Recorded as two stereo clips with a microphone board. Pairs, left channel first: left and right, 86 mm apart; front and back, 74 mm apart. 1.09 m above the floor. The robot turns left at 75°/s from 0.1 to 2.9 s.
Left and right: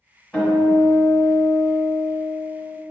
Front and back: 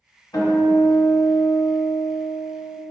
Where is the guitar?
15° left, 1.3 m; by 2.8 s 170° right, 1.3 m.